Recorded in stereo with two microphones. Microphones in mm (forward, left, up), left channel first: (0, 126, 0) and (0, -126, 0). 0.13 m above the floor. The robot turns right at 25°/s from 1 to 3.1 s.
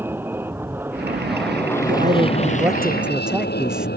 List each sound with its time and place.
0.0 s an aircraft: 10° right; by 4.0 s 45° left
1.9 s a man speaking: 35° right; by 3.9 s 5° right